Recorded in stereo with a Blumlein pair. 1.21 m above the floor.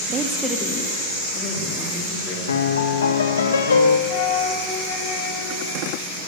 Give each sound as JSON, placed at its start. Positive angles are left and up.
{"t": 0.1, "sound": "a woman speaking", "azimuth_deg": -30, "distance_m": 0.8}
{"t": 2.5, "sound": "a piano", "azimuth_deg": 65, "distance_m": 0.7}
{"t": 4.1, "sound": "a flute", "azimuth_deg": 35, "distance_m": 1.9}